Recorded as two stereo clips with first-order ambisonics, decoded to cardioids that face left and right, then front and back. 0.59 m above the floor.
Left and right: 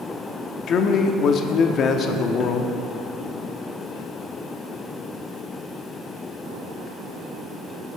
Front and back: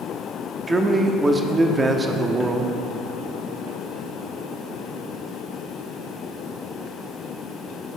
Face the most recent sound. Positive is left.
turn(degrees=110)